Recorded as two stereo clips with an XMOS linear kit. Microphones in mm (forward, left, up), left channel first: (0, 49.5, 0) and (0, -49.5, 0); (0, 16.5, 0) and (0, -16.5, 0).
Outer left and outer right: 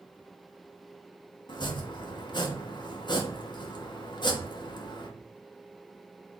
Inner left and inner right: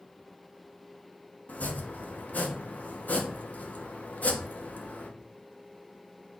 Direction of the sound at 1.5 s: 50° left (ahead or behind).